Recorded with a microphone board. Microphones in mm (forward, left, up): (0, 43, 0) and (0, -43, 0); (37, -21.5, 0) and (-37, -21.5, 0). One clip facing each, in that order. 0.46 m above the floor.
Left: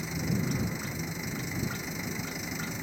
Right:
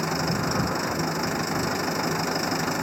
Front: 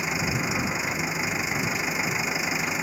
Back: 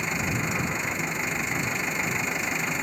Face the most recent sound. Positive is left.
turn(degrees=-85)